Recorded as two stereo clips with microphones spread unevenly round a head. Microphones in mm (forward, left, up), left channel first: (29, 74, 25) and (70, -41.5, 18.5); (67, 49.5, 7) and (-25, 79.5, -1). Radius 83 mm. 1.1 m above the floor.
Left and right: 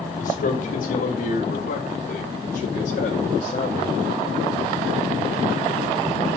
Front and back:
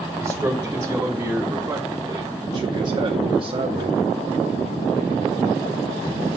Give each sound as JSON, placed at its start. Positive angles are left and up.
{"t": 0.2, "sound": "a man speaking", "azimuth_deg": 90, "distance_m": 2.0}